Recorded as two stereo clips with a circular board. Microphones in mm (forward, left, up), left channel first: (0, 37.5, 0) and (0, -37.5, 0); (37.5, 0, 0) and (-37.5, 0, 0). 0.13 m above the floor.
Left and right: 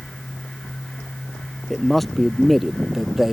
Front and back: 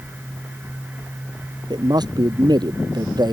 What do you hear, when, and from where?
1.7 s a man speaking: 175° left; by 3.3 s 175° right